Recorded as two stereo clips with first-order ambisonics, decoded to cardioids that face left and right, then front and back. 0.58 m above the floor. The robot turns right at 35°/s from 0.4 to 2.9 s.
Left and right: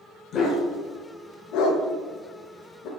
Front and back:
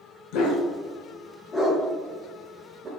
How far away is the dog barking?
About 0.6 m.